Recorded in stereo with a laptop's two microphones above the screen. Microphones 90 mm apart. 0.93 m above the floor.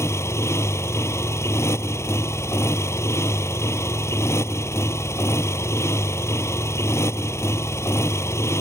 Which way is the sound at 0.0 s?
30° left (ahead or behind).